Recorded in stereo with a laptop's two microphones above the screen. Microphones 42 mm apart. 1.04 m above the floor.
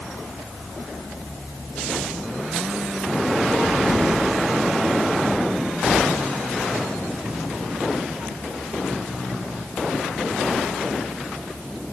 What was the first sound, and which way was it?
Only background noise.